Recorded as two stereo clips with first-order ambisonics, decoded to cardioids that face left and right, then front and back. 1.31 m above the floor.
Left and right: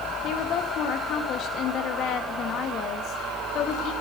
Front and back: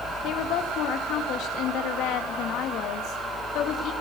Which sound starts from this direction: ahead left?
A woman speaking, at 0.2 s.